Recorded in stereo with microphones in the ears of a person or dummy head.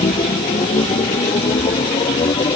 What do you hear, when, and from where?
0.0 s a machine running: 25° left (ahead or behind)